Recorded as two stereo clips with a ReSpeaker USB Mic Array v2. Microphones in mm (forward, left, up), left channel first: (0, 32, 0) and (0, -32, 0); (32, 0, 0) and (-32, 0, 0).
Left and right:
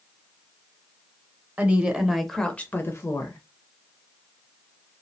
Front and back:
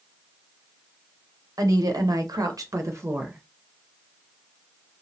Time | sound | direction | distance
1.6 | a woman speaking | 155° right | 0.8 m